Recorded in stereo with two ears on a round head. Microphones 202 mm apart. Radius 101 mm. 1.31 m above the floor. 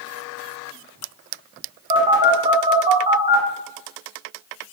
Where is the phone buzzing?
25° right (ahead or behind), 0.7 m.